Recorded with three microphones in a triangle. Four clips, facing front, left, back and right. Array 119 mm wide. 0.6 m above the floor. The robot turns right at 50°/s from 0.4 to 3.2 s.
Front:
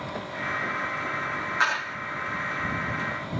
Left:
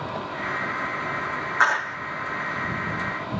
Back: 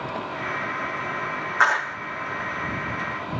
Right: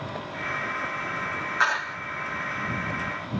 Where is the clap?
150° left; by 2.0 s 165° left.